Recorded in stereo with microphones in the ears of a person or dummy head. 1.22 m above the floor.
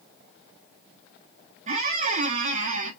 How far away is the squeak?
About 0.5 m.